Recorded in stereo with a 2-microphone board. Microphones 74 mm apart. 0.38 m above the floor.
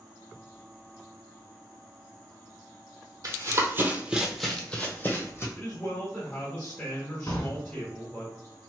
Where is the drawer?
50° left (ahead or behind), 1.6 m.